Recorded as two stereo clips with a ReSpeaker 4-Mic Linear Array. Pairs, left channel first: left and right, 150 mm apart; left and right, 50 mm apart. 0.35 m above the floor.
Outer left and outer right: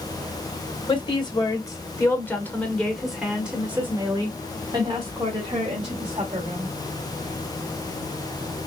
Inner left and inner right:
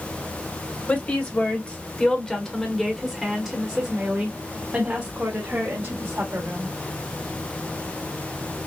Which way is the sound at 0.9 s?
30° left (ahead or behind).